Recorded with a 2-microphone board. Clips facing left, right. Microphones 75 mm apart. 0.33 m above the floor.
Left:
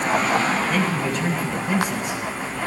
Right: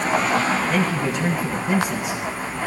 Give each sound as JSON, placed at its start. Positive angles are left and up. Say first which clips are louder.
{"t": 0.7, "sound": "a man speaking", "louder": "right 1 dB", "side_deg": -20, "distance_m": 1.6}